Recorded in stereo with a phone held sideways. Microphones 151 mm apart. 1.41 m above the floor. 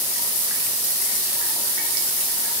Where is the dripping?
I don't hear dripping.